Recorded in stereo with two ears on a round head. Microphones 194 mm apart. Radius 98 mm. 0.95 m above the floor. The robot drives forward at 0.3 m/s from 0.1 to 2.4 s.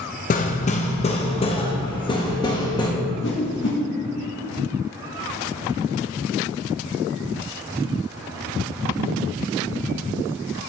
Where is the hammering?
40° left (ahead or behind), 0.6 m; by 2.9 s 20° left (ahead or behind), 1.1 m.